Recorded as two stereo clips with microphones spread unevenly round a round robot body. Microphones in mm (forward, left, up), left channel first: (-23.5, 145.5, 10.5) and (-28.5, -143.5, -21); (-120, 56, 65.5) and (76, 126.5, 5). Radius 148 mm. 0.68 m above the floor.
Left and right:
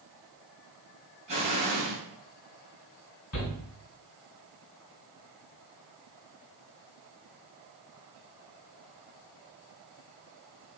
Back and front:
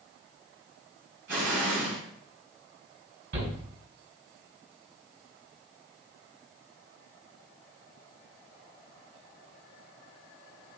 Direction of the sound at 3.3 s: 45° left.